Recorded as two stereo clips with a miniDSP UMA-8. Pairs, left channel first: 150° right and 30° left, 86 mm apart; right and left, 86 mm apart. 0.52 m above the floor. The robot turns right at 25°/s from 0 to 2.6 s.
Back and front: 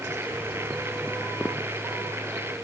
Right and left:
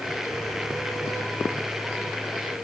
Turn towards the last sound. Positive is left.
No sound to turn to.